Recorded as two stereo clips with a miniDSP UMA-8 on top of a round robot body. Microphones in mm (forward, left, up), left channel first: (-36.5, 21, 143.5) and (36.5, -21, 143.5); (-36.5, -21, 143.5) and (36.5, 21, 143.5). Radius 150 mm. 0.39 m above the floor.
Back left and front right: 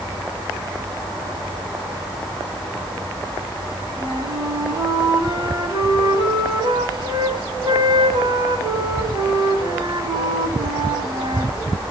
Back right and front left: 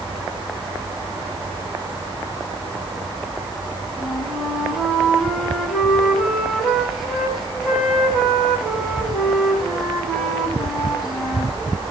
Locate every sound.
4.0 s a flute: 60° right, 4.5 m